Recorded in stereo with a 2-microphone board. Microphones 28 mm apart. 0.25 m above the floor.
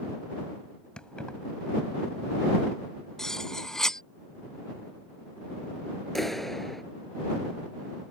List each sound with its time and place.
1.0 s keys jangling: 35° left (ahead or behind)
3.2 s cutlery clinking: 20° left (ahead or behind)
6.2 s a clap: 10° left (ahead or behind)